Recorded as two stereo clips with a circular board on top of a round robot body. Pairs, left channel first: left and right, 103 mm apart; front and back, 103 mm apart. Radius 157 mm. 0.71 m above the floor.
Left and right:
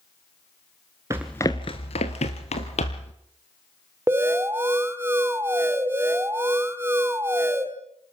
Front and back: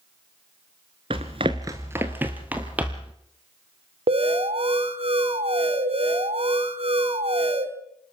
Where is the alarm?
160° right, 1.9 m.